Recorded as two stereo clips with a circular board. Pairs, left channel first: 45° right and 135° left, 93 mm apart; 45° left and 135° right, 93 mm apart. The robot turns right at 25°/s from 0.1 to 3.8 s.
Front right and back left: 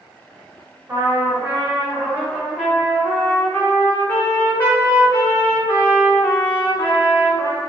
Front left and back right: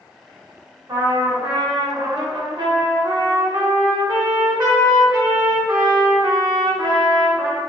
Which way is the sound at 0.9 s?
Straight behind.